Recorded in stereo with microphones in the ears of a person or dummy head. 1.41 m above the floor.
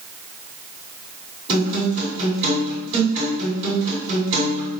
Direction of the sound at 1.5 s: 40° right (ahead or behind).